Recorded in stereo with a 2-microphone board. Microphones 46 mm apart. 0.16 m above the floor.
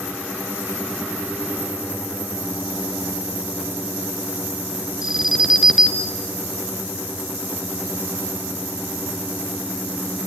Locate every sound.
5.0 s an alarm: 10° right (ahead or behind), 2.5 m